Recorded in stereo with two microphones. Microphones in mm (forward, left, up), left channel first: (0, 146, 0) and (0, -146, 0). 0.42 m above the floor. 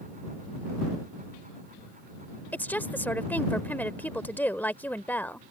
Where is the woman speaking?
5° left (ahead or behind).